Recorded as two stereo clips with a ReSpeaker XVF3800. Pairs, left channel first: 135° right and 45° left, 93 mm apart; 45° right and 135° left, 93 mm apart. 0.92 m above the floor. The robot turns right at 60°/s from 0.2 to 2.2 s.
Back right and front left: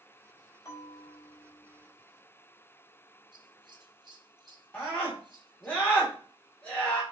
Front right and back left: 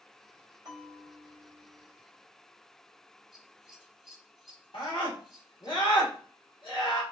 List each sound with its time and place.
0.7 s a bell: straight behind, 3 m; by 1.9 s 110° right, 3 m
3.3 s scissors: 50° left, 1.2 m
4.7 s a scream: 60° right, 2.0 m